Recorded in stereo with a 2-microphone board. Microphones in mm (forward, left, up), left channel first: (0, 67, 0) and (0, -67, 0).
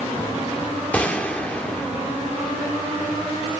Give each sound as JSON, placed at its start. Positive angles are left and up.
{"t": 0.9, "sound": "a gunshot", "side_deg": 10, "distance_m": 1.7}